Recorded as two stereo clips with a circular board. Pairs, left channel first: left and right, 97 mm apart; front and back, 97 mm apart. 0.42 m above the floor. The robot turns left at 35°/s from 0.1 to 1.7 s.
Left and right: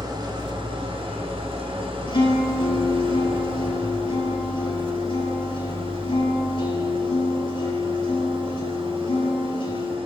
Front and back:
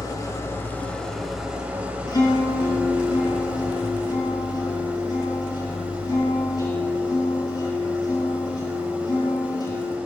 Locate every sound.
0.0 s an engine running: 50° right, 1.9 m; by 10.1 s 105° right, 1.9 m
2.1 s a guitar: 50° left, 4.5 m